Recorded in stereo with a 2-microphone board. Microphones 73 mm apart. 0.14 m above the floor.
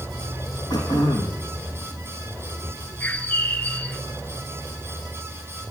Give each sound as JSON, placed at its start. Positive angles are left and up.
{"t": 0.7, "sound": "throat clearing", "side_deg": 70, "distance_m": 5.0}
{"t": 3.0, "sound": "a bird", "side_deg": 20, "distance_m": 0.9}